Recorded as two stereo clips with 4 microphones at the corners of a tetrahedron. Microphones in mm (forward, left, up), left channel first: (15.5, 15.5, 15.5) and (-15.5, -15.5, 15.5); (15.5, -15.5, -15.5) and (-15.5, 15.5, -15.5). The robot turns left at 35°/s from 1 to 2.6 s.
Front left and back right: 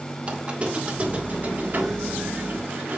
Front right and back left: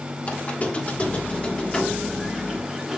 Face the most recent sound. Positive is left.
turn(degrees=-145)